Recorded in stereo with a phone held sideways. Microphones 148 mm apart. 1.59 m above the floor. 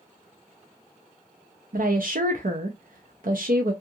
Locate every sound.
1.7 s a woman speaking: 70° right (ahead or behind), 0.5 m